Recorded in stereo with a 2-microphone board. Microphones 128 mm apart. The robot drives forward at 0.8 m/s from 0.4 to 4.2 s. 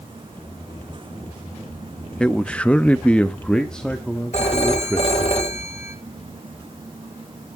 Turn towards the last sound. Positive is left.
turn(degrees=60)  # may be behind; listen again after turning